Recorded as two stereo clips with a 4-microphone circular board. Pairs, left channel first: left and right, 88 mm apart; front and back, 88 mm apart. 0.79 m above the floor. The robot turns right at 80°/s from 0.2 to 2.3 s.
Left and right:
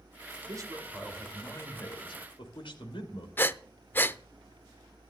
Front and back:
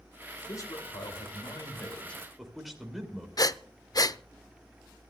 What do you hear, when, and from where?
0.5 s a man speaking: 55° right, 3.5 m; by 3.3 s 90° left, 3.5 m
3.4 s breathing: 30° left, 0.5 m